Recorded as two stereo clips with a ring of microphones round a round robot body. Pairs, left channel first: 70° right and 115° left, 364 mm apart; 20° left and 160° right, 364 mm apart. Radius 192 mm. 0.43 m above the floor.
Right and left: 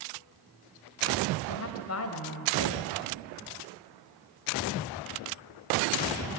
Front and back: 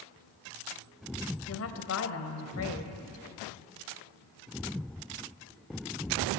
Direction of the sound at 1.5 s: 25° right.